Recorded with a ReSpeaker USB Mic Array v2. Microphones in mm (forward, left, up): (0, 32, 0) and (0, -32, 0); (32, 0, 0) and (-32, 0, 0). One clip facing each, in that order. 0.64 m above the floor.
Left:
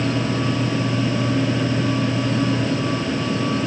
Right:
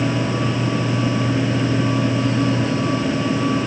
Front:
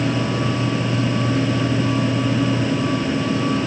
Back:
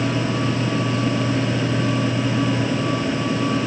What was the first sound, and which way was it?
Only background noise.